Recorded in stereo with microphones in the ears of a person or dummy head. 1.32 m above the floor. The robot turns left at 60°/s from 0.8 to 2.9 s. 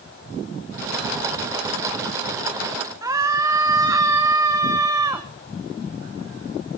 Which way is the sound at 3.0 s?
20° right (ahead or behind).